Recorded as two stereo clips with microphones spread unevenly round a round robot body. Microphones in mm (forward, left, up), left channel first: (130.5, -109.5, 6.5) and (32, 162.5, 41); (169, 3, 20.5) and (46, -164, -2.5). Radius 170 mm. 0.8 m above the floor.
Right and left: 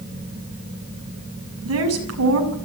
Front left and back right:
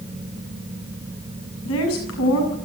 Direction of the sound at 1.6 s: 75° left.